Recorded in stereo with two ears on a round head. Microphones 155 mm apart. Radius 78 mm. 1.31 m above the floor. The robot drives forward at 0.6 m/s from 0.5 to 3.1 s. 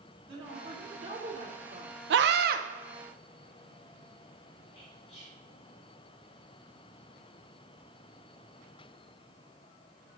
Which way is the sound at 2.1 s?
75° right (ahead or behind).